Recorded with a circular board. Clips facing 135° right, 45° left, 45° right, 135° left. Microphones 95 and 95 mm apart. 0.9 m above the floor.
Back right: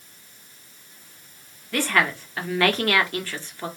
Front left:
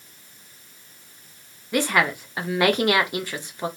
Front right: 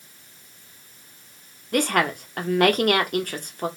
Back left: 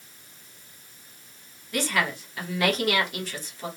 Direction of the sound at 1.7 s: 25° right.